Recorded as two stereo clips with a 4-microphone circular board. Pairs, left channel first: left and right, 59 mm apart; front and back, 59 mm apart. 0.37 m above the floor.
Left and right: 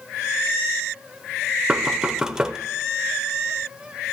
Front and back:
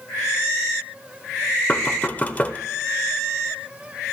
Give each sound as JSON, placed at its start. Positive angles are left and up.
{"t": 1.7, "sound": "knocking", "azimuth_deg": -25, "distance_m": 0.5}